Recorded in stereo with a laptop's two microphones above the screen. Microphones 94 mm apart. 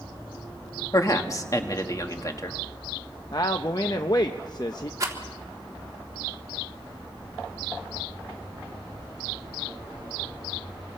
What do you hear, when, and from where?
0.9 s a man speaking: 40° left (ahead or behind), 1.5 m
3.3 s a man speaking: 45° left (ahead or behind), 0.7 m
5.0 s a rattle: 35° right (ahead or behind), 2.5 m